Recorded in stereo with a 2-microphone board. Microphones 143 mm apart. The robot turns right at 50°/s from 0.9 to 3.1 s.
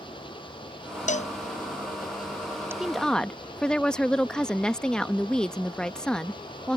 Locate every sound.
0.0 s an engine running: 35° left; by 6.8 s 145° left
1.1 s a cowbell: 65° left (ahead or behind); by 2.7 s 20° right (ahead or behind)
2.8 s a woman speaking: 5° right (ahead or behind); by 6.8 s 5° left (ahead or behind)